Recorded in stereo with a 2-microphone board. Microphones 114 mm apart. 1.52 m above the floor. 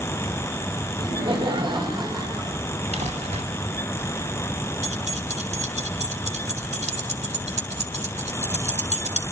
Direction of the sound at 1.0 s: 45° right (ahead or behind).